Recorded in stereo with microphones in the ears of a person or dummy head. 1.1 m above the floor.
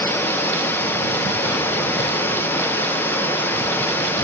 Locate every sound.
0.0 s running water: 10° left (ahead or behind), 0.7 m